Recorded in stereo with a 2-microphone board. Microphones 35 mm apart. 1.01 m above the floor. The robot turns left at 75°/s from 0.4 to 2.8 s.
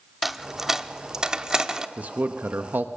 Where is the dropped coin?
5° right (ahead or behind), 0.6 m; by 1.9 s 15° right (ahead or behind), 0.6 m.